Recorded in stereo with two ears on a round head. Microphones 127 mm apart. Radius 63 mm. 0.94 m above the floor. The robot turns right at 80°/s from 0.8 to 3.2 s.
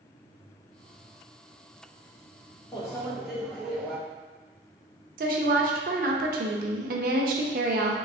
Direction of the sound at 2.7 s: 145° left.